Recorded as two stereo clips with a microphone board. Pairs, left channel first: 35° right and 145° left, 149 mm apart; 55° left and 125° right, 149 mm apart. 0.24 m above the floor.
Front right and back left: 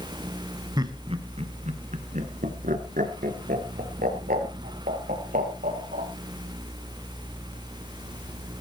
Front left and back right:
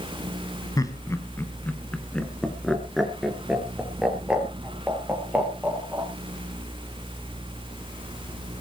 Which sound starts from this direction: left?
Laughter, at 0.8 s.